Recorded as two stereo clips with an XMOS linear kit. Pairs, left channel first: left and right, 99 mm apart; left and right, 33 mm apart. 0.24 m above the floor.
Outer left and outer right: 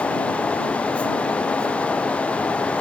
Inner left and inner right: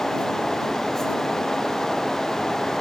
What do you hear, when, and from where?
Only background noise.